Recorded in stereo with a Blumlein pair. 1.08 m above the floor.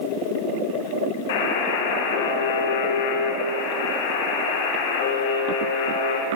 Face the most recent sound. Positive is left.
turn(degrees=55)